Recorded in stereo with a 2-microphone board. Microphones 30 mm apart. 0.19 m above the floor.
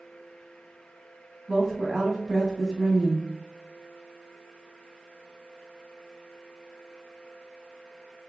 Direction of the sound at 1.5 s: 15° right (ahead or behind).